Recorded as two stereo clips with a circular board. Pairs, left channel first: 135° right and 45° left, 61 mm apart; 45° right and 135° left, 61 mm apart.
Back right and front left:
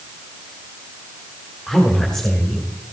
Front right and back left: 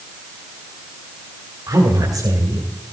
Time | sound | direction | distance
1.7 | a woman speaking | 135° left | 2.5 m